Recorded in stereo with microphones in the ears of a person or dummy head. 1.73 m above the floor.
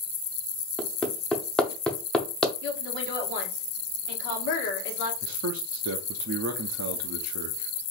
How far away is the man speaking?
About 0.6 m.